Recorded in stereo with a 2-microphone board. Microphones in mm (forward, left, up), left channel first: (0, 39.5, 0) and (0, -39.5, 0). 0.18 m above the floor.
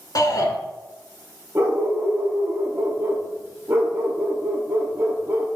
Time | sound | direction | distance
0.1 | a shout | 55° left (ahead or behind) | 1.7 m
1.6 | a dog barking | 30° right (ahead or behind) | 2 m